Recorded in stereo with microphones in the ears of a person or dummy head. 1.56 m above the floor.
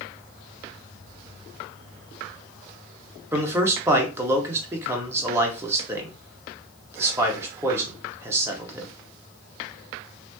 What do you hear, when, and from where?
3.3 s a man speaking: 15° right (ahead or behind), 0.9 m